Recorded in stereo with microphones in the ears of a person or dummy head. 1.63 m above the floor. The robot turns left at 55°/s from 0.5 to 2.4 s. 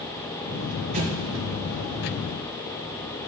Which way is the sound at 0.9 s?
35° right (ahead or behind).